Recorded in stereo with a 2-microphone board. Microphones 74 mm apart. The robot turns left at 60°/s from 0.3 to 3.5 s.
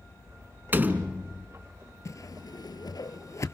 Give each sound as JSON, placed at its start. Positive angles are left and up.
{"t": 0.7, "sound": "a door slam", "azimuth_deg": -115, "distance_m": 1.0}
{"t": 2.0, "sound": "a whoosh", "side_deg": 45, "distance_m": 0.8}